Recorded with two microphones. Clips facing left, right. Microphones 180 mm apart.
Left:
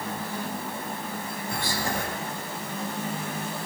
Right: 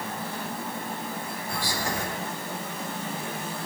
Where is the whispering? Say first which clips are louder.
Left 1 dB; 25° left (ahead or behind), 7.5 m.